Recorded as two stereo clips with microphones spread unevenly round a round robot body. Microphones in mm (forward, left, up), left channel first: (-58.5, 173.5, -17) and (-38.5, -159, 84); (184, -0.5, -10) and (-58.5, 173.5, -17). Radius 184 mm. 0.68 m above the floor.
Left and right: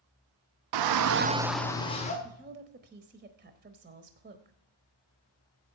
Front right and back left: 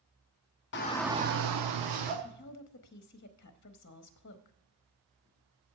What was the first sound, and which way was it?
A shout, 85° right.